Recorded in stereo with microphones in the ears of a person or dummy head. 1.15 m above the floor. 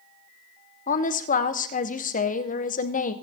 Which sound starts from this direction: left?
A woman speaking, at 0.9 s.